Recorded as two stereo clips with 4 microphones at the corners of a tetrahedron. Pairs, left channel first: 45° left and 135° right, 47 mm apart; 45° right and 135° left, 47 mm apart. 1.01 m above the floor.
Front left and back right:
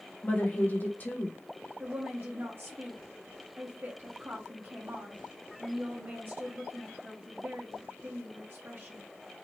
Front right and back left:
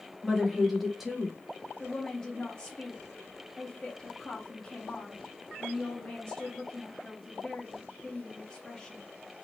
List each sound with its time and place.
0.2 s a woman speaking: 50° left, 0.8 m
1.8 s a woman speaking: 105° right, 0.6 m